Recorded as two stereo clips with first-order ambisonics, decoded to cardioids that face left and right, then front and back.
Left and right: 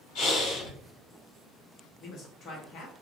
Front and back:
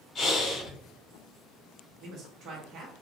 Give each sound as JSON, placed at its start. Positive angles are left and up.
{"t": 0.1, "sound": "breathing", "azimuth_deg": 70, "distance_m": 1.9}
{"t": 2.0, "sound": "a man speaking", "azimuth_deg": 135, "distance_m": 1.0}